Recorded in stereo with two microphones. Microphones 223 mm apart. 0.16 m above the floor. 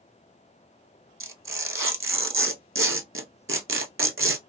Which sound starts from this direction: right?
Tearing paper, at 1.2 s.